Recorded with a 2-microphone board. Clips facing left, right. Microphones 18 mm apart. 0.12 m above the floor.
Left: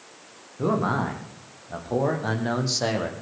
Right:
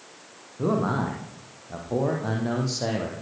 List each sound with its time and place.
0.6 s a man speaking: 20° left (ahead or behind), 6.5 m; by 3.1 s 35° left (ahead or behind), 5 m